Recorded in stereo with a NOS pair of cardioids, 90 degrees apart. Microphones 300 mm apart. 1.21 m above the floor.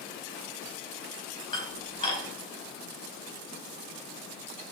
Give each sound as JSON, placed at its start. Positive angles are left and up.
{"t": 1.5, "sound": "dishes clattering", "azimuth_deg": 15, "distance_m": 5.0}